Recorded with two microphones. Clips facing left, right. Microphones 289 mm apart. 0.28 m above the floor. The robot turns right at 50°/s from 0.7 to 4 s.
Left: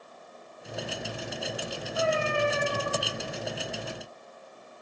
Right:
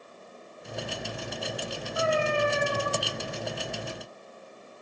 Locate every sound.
1.9 s a cat meowing: 65° left, 2.5 m; by 2.9 s 115° left, 2.5 m